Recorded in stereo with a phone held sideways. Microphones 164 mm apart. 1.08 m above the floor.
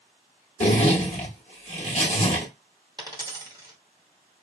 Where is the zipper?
45° left (ahead or behind), 0.9 m.